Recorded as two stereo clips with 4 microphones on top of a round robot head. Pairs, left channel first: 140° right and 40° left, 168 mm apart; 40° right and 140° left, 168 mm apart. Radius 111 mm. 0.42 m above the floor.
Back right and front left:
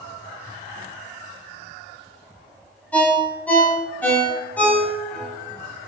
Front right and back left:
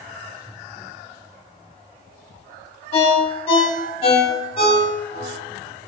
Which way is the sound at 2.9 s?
65° right.